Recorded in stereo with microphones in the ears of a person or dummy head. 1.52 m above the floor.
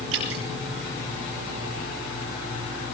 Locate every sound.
0.1 s dripping: 85° right, 7.5 m